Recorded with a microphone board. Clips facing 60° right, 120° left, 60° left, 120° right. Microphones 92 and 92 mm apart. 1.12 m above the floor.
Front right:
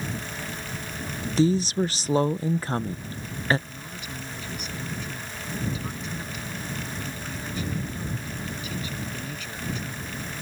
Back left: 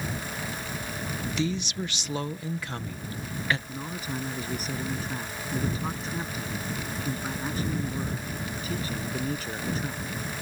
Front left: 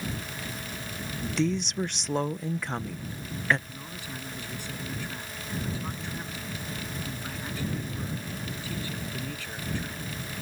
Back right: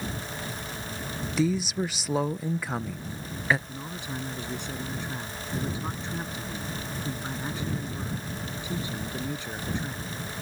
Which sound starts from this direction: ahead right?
A woman speaking, at 1.4 s.